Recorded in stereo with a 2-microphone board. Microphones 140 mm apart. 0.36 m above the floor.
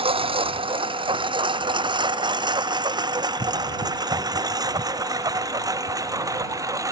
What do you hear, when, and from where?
0.0 s a lawn mower: 40° right (ahead or behind); by 6.9 s 25° right (ahead or behind)